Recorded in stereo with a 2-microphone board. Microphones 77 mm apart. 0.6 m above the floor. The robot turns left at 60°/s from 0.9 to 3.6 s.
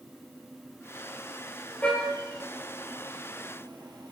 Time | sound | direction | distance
1.8 | a car horn | 20° left (ahead or behind) | 9.5 m